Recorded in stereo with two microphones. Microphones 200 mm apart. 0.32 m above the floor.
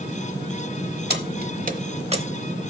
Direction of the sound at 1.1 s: 60° right (ahead or behind).